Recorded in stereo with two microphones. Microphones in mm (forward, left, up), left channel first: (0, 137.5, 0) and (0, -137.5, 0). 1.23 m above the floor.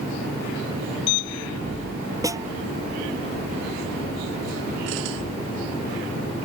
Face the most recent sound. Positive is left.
turn(degrees=-10)  # may be behind; listen again after turning